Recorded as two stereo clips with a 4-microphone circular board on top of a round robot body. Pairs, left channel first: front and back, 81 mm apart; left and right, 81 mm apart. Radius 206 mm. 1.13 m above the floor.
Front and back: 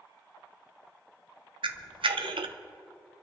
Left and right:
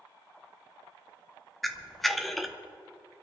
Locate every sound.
1.6 s a camera shutter: straight behind, 0.8 m